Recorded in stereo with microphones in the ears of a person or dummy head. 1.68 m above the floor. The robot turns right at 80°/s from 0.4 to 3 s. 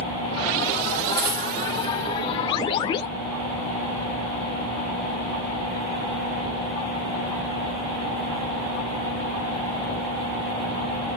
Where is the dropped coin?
25° right (ahead or behind), 1.9 m; by 1.5 s 5° right (ahead or behind), 1.9 m.